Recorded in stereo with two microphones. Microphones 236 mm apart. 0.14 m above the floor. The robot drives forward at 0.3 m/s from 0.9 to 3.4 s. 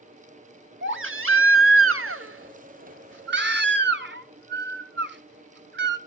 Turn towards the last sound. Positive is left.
turn(degrees=-50)  # may be behind; listen again after turning